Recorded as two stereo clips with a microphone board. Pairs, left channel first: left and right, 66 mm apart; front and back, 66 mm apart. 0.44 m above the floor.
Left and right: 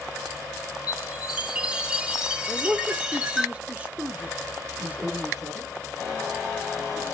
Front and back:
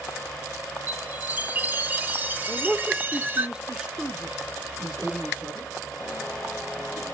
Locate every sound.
0.9 s a chime: 155° right, 0.7 m
2.5 s a man speaking: 125° right, 0.8 m
4.8 s a man speaking: 65° right, 7 m